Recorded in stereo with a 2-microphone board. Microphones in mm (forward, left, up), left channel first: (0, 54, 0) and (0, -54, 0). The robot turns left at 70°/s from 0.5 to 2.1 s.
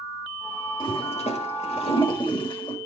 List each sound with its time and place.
0.8 s a toilet flushing: 45° left (ahead or behind), 1.7 m